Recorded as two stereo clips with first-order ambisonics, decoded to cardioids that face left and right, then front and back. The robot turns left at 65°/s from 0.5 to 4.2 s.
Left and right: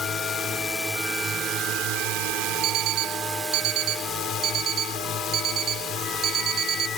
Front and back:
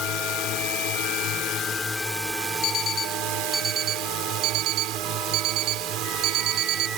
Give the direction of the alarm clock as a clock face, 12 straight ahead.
1 o'clock.